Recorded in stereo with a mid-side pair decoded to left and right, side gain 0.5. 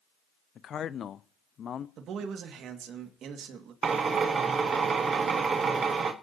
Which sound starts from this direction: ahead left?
A man speaking, at 0.6 s.